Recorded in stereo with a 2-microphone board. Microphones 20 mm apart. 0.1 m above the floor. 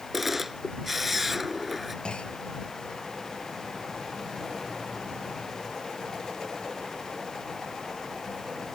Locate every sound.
0.1 s a camera shutter: 10° right (ahead or behind)
2.0 s a clunk: 55° left (ahead or behind)